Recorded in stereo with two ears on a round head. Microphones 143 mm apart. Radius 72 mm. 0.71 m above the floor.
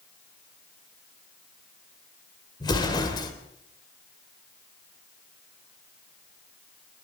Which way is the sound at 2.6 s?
25° left (ahead or behind).